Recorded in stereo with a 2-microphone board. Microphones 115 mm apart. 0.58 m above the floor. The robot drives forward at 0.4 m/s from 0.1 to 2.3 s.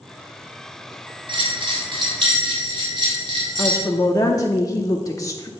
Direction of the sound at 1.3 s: 45° right (ahead or behind).